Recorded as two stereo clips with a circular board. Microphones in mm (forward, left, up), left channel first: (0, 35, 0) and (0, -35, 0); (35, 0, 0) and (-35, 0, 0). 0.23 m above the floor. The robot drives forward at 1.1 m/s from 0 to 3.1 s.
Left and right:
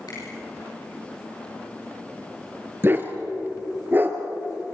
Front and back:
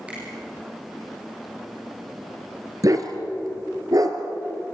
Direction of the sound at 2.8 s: 145° right.